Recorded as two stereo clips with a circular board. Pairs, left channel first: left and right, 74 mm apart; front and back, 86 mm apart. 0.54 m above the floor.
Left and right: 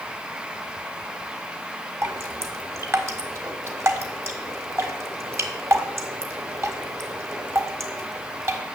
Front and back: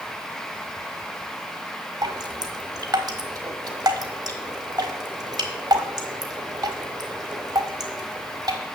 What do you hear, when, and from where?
2.0 s dripping: 140° right, 1.4 m